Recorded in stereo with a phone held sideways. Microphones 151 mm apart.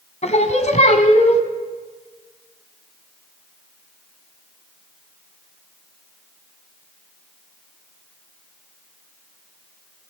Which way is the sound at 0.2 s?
50° left (ahead or behind).